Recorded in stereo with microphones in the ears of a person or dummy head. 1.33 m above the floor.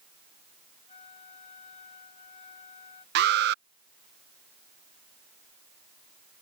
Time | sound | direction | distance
0.9 | a flute | 30° left (ahead or behind) | ?
3.1 | an alarm | 60° right (ahead or behind) | ?